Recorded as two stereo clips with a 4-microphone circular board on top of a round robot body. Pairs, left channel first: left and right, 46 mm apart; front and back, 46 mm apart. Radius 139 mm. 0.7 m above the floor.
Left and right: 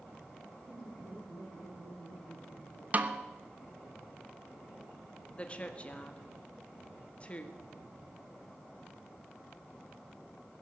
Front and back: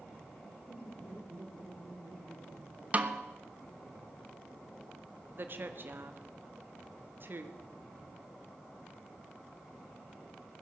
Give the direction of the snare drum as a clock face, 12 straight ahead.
4 o'clock.